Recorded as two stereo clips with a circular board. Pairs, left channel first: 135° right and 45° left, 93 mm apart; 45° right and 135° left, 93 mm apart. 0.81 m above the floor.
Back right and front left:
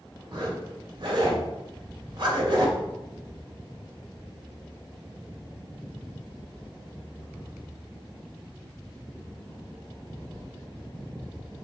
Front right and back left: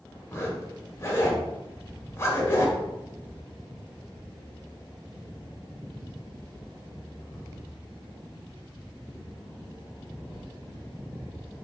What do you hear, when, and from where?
0.3 s a zipper: 15° left, 1.2 m